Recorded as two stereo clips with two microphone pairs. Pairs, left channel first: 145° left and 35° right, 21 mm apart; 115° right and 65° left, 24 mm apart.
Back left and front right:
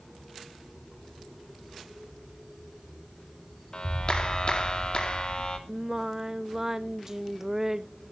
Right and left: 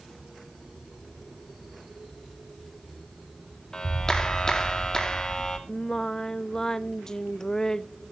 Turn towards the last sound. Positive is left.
turn(degrees=-80)